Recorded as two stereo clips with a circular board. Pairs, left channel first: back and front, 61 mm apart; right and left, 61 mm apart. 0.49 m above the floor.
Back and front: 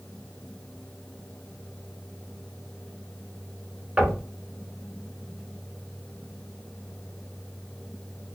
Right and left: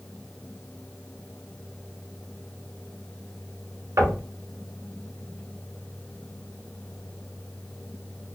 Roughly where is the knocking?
Ahead left.